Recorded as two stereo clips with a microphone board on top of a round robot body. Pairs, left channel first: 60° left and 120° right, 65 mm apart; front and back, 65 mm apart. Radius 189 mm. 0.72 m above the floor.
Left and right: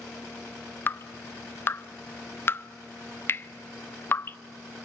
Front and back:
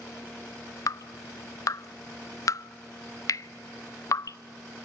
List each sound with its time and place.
0.9 s dripping: 10° left, 0.5 m